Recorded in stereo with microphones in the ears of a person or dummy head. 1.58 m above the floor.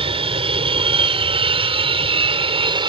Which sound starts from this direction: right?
An aircraft, at 0.0 s.